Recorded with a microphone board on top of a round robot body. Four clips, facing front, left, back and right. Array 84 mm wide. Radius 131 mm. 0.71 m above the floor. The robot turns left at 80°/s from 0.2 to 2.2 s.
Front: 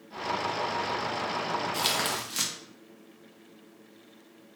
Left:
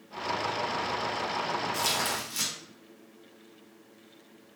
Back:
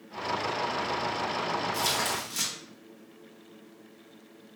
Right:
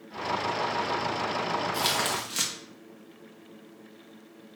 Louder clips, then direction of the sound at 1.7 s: Right 2 dB, even; 20° right.